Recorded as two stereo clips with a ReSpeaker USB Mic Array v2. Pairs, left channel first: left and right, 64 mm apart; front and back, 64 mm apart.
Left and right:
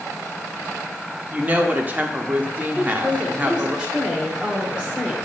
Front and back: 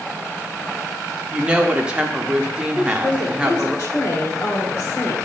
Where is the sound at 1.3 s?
125° right, 0.9 m.